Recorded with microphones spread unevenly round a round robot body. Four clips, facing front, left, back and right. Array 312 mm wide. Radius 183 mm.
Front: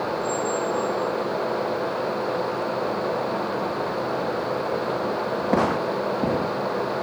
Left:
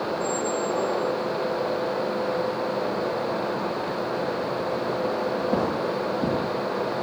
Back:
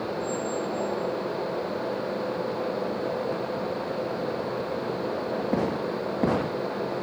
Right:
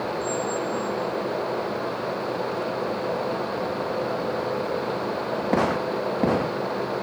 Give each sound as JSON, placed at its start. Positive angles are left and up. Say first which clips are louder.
{"t": 0.2, "sound": "a squeak", "louder": "left 1 dB, front 4 dB", "azimuth_deg": 60, "distance_m": 5.5}